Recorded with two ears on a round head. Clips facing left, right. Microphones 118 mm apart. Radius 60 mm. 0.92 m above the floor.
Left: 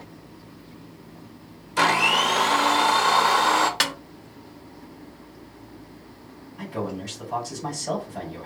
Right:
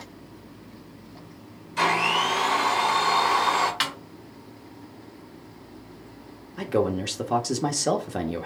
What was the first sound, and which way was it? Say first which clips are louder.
A blender: left 2 dB; 50° left (ahead or behind).